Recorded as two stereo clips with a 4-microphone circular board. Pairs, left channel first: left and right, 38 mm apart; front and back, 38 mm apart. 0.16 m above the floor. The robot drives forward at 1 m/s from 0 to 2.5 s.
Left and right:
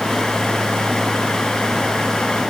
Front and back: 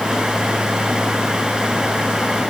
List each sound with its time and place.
Only background noise.